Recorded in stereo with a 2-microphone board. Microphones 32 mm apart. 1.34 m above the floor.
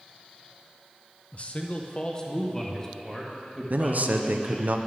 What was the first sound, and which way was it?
A man speaking, 45° left (ahead or behind).